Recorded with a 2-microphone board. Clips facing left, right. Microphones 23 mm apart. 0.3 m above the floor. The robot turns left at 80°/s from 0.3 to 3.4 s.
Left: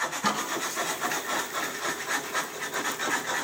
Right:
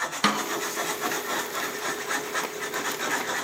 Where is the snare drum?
75° right (ahead or behind), 3 m; by 0.5 s 60° right (ahead or behind), 3 m.